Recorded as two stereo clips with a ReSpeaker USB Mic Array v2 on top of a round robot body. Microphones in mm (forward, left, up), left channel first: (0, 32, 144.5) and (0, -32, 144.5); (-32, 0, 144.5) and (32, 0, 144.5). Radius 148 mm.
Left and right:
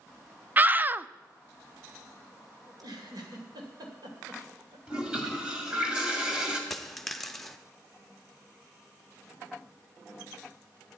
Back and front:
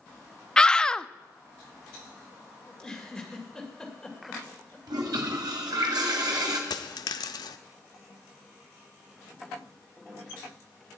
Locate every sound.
0.6 s a scream: 115° right, 0.6 m
2.7 s a giggle: 95° right, 2.5 m
4.9 s a toilet flushing: 15° right, 1.8 m
6.7 s a dropped coin: 175° left, 0.6 m